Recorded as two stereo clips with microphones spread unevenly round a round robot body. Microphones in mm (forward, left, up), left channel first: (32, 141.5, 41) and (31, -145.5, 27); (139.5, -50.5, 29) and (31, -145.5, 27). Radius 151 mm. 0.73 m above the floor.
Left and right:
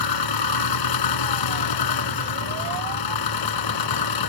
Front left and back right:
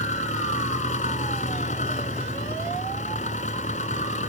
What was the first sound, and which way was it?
An engine running, 110° left.